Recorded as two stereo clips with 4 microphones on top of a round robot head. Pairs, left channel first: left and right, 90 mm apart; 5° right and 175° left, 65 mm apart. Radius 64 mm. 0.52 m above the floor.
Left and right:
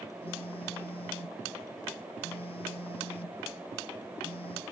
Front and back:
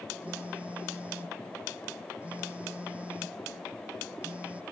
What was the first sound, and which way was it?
A phone buzzing, 105° left.